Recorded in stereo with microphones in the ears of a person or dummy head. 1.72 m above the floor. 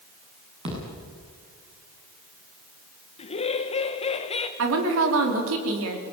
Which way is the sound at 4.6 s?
90° right.